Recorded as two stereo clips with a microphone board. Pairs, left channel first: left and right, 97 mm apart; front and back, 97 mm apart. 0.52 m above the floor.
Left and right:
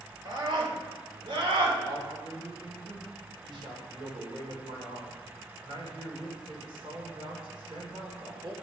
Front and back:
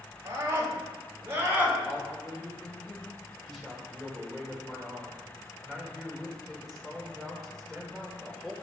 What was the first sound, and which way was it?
A scream, 125° right.